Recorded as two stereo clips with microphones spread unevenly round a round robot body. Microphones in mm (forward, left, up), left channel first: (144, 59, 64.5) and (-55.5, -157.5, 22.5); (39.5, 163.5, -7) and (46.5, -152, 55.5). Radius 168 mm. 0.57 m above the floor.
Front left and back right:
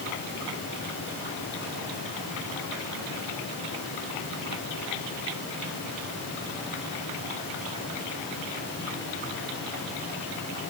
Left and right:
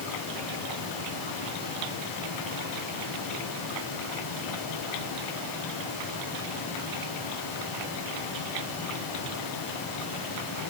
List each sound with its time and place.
Only background noise.